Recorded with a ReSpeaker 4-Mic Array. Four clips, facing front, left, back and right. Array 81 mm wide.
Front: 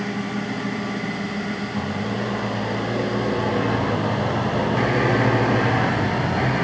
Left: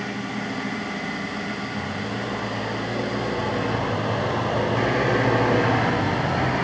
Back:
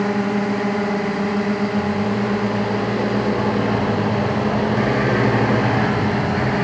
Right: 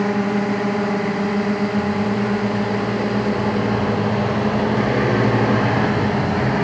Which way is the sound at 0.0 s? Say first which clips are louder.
Right 10 dB, back 7 dB; 135° right.